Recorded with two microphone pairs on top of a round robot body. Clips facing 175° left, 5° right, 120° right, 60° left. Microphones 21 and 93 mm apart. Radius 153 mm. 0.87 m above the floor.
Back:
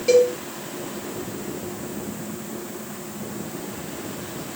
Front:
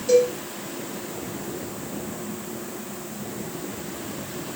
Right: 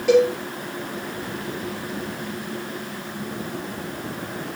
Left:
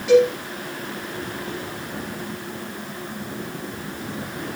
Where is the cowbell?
160° right, 3 m.